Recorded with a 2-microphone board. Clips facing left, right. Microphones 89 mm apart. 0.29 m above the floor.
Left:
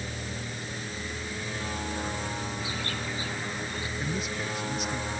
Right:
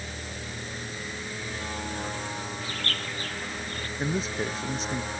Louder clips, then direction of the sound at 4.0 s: Right 6 dB; 35° right (ahead or behind).